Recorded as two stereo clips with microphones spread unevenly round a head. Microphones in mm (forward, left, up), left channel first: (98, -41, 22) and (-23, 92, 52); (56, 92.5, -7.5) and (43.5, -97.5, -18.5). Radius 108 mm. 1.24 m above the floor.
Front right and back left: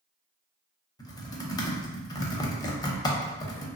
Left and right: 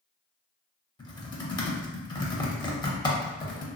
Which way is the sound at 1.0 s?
20° left.